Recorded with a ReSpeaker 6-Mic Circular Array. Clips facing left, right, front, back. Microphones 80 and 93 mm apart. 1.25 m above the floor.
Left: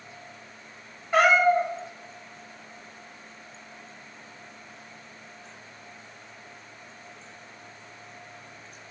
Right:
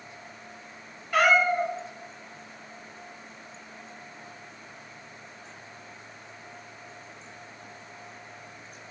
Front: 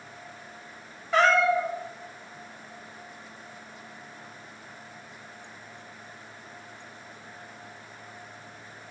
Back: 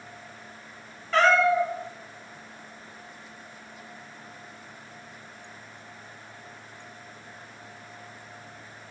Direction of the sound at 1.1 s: 55° left.